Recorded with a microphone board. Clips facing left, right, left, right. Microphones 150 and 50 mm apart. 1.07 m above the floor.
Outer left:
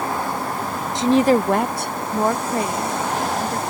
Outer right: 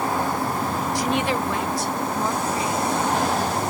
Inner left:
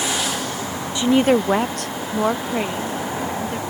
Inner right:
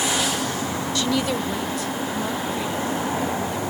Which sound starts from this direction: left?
A woman speaking, at 0.9 s.